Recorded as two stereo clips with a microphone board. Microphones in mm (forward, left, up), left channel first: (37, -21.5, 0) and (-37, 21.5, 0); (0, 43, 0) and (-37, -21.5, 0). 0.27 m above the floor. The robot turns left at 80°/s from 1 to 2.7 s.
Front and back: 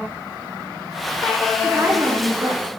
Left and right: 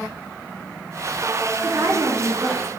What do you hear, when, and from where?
1.6 s a woman speaking: 130° right, 4.5 m; by 2.7 s 145° left, 4.5 m